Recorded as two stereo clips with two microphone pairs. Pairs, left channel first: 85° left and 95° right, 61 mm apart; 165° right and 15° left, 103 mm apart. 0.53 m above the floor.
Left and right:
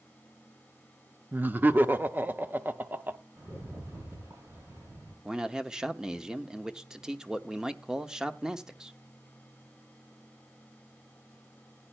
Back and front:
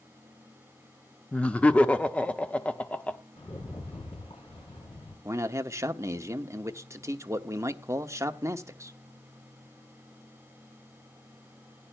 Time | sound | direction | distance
1.3 | laughter | 100° right | 0.7 m
3.4 | a rattle | 135° right | 5 m
5.2 | a man speaking | 20° right | 0.8 m